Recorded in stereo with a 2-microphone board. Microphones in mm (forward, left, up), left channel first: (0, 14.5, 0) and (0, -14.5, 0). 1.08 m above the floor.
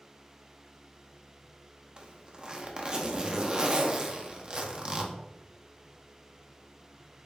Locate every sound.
2.0 s a zipper: 30° right (ahead or behind), 0.5 m